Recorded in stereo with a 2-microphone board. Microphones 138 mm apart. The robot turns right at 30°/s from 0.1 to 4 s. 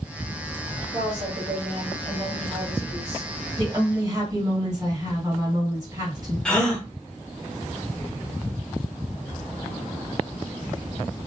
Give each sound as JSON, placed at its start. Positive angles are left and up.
{"t": 0.9, "sound": "a woman speaking", "azimuth_deg": -115, "distance_m": 2.0}
{"t": 3.6, "sound": "a woman speaking", "side_deg": -40, "distance_m": 2.5}
{"t": 6.5, "sound": "a gasp", "side_deg": 5, "distance_m": 0.9}